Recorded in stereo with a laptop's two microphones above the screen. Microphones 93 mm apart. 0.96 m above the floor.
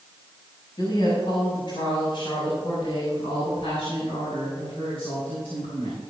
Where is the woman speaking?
50° left (ahead or behind), 6 m; by 6.0 s 80° left, 8 m.